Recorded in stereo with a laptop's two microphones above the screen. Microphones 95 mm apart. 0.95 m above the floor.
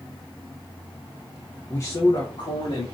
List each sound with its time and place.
1.7 s a man speaking: 20° left (ahead or behind), 0.8 m; by 2.9 s 60° left (ahead or behind), 2 m